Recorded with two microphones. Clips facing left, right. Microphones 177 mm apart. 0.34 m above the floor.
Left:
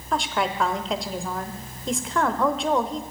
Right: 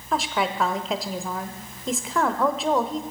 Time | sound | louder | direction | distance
0.1 | a woman speaking | even | centre (ahead or behind) | 0.8 m